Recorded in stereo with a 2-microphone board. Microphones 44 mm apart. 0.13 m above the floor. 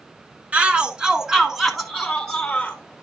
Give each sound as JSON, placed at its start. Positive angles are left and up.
{"t": 0.5, "sound": "a shout", "side_deg": -30, "distance_m": 1.1}